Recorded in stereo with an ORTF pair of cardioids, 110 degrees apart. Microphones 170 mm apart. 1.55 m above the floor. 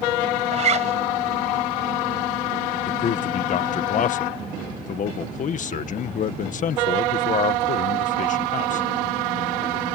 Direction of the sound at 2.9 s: 50° left.